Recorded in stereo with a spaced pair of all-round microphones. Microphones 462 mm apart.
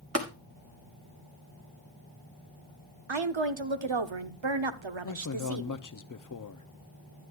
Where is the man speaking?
45° left (ahead or behind), 0.5 m.